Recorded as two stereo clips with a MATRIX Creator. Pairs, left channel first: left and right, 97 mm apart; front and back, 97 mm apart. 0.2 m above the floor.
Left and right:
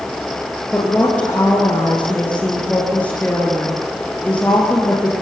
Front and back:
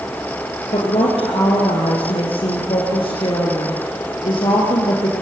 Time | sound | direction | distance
0.7 | a woman speaking | 15° left | 3.5 m